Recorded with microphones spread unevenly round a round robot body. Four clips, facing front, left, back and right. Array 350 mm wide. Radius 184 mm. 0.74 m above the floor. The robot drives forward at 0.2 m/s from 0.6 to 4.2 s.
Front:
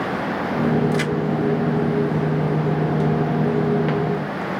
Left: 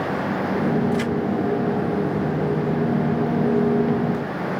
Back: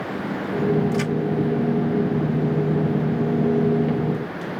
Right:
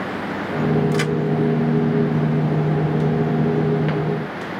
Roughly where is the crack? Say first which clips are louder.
Right 2 dB, front 2 dB; right.